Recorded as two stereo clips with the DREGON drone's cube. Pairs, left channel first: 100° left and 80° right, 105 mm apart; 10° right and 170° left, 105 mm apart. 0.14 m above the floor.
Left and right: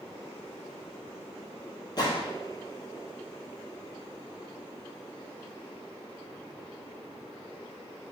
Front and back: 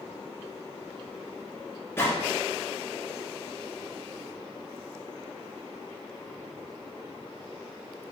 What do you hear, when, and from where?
2.0 s a gunshot: 55° left, 2.5 m